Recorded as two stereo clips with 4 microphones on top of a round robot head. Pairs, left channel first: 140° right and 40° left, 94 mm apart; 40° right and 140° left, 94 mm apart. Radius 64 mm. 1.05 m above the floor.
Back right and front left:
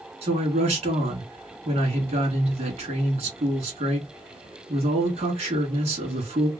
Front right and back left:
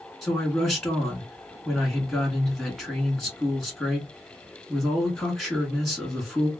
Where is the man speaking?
50° left, 2.0 m.